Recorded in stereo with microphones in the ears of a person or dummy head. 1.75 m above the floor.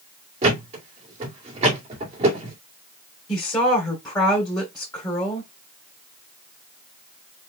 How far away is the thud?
About 2 m.